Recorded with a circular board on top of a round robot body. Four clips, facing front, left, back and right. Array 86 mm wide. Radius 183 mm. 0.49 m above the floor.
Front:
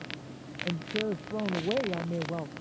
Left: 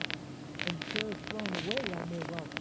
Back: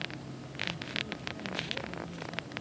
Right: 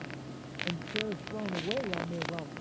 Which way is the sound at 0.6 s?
5° right.